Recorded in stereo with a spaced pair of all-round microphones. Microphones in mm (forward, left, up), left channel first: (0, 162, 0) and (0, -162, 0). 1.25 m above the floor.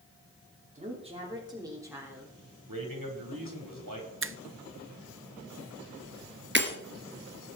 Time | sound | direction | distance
0.8 | a woman speaking | 20° right (ahead or behind) | 2.5 m
2.7 | a man speaking | 85° right | 4 m
4.2 | a finger snap | 40° right (ahead or behind) | 0.6 m
6.5 | breaking glass | 35° right (ahead or behind) | 2.5 m